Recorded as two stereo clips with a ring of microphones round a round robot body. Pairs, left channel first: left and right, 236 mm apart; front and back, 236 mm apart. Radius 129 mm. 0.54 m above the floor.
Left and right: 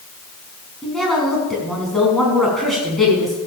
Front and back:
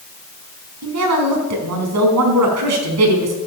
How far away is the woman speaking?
About 4.5 m.